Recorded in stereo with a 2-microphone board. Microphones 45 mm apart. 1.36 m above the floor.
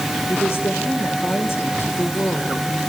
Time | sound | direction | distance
0.3 | a woman speaking | 75° left (ahead or behind) | 4 m